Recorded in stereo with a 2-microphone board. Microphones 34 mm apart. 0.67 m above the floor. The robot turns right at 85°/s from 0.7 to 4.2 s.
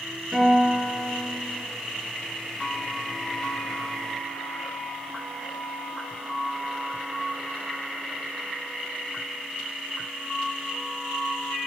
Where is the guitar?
5° right, 3.5 m; by 1.6 s 75° left, 3.5 m.